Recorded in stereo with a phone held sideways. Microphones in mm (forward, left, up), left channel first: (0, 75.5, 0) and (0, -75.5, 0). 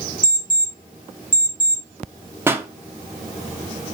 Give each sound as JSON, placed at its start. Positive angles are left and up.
{"t": 0.2, "sound": "an alarm clock", "side_deg": 60, "distance_m": 1.3}
{"t": 2.5, "sound": "a pop", "side_deg": -15, "distance_m": 0.5}